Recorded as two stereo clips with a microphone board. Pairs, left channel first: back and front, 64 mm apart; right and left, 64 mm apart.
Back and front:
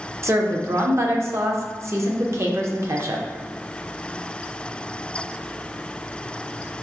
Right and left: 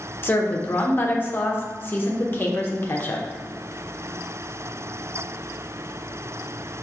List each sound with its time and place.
0.2 s a woman speaking: 35° right, 0.5 m